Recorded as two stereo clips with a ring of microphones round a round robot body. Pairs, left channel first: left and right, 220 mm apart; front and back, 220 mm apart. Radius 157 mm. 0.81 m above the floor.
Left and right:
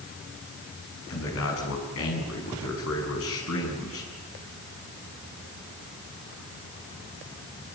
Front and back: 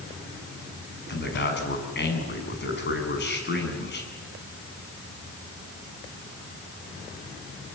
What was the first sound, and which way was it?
A man speaking, 40° left.